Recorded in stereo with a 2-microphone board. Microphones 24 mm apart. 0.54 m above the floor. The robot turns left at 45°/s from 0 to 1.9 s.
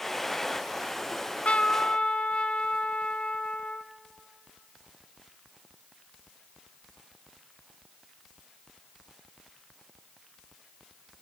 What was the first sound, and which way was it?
A trumpet, 100° left.